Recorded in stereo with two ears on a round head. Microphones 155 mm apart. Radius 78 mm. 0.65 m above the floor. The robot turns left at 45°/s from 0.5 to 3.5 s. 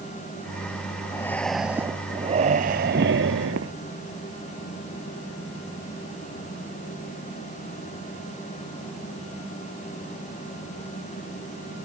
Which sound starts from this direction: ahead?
Breathing, at 1.1 s.